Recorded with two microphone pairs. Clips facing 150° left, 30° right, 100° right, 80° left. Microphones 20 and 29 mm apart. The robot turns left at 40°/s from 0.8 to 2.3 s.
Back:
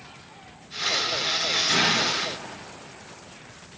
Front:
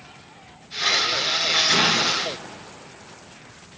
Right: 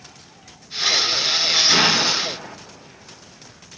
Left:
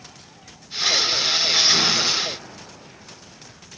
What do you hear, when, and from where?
1.7 s an explosion: 90° right, 0.9 m; by 2.6 s 115° right, 0.9 m